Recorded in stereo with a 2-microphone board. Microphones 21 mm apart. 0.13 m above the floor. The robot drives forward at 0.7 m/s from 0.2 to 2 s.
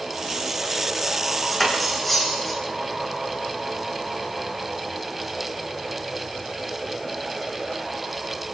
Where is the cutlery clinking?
5° left (ahead or behind), 4 m.